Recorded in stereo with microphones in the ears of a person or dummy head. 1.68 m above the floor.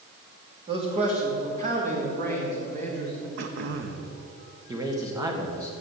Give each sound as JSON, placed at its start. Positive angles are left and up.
{"t": 0.7, "sound": "a man speaking", "side_deg": -25, "distance_m": 2.5}
{"t": 3.4, "sound": "throat clearing", "side_deg": -55, "distance_m": 1.1}
{"t": 4.7, "sound": "a man speaking", "side_deg": -15, "distance_m": 1.6}